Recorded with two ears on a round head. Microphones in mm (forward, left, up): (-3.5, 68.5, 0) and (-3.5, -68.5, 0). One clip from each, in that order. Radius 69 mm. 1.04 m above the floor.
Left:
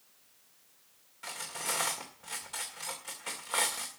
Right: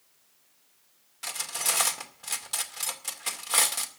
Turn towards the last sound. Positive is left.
turn(degrees=-85)